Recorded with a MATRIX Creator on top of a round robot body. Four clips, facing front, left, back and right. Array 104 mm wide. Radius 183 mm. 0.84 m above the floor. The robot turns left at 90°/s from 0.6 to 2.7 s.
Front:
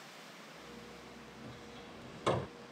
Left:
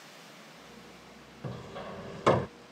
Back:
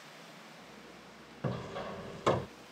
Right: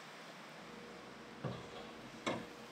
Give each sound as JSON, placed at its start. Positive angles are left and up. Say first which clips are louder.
{"t": 1.4, "sound": "hammering", "louder": "left 7 dB, back 16 dB", "azimuth_deg": 180}